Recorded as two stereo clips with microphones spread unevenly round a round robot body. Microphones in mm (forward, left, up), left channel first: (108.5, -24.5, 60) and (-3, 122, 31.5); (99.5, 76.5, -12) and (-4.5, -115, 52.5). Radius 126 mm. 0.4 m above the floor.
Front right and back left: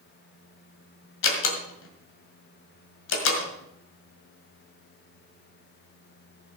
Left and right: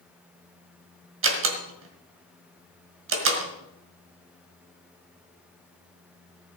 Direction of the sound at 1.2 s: 80° right.